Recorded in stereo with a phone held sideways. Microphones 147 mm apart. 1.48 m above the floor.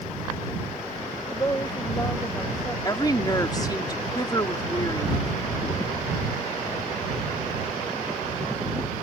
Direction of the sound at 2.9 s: 25° left (ahead or behind).